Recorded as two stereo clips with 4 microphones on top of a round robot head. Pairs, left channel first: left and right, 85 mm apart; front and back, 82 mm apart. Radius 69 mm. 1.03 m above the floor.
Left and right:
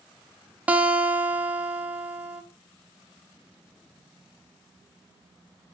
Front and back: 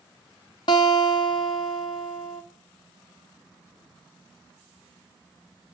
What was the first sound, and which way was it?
A guitar, 20° right.